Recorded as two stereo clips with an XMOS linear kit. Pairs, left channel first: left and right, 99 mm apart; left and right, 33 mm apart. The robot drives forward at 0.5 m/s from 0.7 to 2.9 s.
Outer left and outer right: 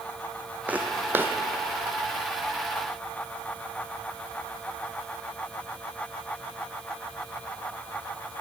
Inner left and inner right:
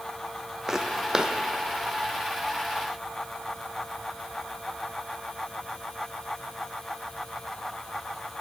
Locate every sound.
0.7 s footsteps: 15° right (ahead or behind), 0.9 m; by 1.3 s 25° right (ahead or behind), 0.6 m